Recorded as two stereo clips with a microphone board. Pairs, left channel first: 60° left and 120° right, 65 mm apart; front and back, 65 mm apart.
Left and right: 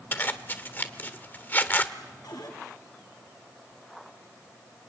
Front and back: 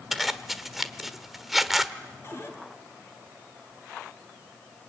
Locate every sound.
0.1 s a zipper: 95° left, 1.2 m
2.2 s a cupboard door: 50° left, 6 m